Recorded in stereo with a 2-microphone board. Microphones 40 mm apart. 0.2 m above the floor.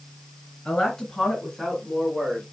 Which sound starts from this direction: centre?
A woman speaking, at 0.7 s.